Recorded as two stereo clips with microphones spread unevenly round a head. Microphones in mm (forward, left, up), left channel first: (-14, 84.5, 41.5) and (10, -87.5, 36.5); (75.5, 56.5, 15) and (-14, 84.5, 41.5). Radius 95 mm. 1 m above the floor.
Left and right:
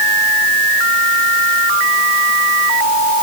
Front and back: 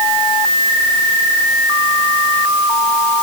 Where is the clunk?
I don't hear a clunk.